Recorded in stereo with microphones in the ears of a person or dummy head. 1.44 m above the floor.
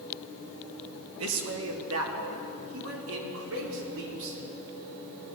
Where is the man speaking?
75° right (ahead or behind), 3 m; by 4.4 s 70° right (ahead or behind), 6 m.